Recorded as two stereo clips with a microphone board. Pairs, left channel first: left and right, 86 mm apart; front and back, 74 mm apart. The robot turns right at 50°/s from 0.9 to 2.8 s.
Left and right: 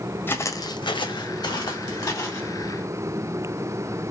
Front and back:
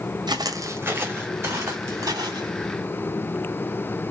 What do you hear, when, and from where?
0.3 s footsteps: 155° left, 0.5 m